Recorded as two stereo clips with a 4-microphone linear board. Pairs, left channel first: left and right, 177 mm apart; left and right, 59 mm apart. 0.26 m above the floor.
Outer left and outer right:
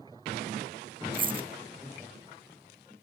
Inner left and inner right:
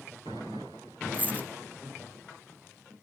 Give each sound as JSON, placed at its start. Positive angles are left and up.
{"t": 1.1, "sound": "a dropped coin", "side_deg": -30, "distance_m": 0.7}